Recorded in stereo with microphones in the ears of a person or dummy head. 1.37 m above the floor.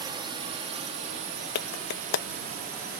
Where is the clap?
60° left (ahead or behind).